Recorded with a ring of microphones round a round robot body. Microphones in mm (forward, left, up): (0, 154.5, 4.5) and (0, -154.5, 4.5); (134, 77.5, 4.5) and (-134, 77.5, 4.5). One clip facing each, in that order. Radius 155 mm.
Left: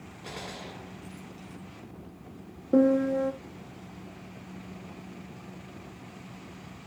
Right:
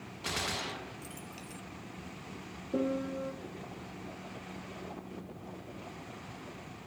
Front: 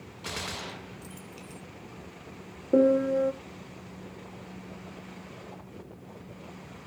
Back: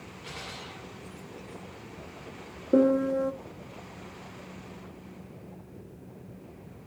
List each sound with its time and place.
0.2 s a gunshot: 35° right, 0.7 m
2.7 s a piano: 100° left, 1.0 m